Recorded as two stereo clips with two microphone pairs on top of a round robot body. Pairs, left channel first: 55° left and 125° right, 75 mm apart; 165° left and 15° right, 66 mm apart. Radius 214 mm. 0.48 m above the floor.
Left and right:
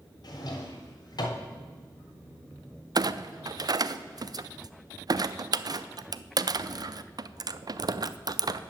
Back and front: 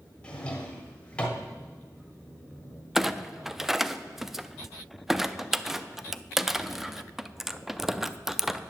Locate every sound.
0.2 s a drawer: 90° left, 1.6 m
3.0 s a clunk: 100° right, 0.6 m